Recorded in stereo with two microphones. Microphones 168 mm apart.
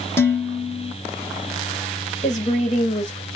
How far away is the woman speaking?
About 1.2 m.